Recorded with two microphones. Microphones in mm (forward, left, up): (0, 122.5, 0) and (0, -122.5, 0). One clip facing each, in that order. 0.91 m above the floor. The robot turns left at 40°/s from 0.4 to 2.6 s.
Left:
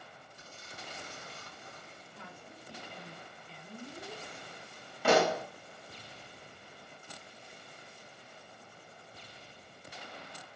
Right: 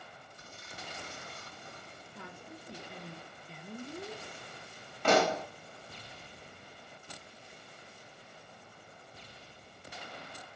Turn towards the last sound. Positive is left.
turn(degrees=10)  # may be behind; listen again after turning